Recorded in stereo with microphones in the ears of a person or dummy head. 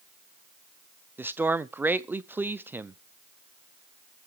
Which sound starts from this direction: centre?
A man speaking, at 1.2 s.